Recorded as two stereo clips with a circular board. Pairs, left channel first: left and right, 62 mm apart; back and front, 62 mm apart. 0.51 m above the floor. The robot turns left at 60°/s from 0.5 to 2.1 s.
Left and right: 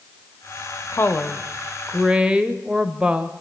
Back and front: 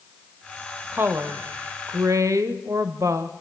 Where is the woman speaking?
55° left, 1.7 m; by 3.3 s 20° right, 1.7 m.